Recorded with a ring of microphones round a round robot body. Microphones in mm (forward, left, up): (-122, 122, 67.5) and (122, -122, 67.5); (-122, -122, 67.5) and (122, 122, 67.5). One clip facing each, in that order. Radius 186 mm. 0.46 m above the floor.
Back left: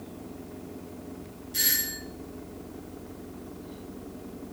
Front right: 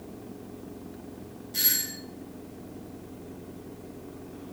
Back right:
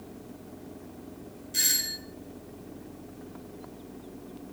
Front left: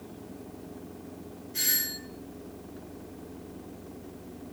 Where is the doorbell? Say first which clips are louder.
Back left 2 dB, front left 1 dB; 135° right, 3 m.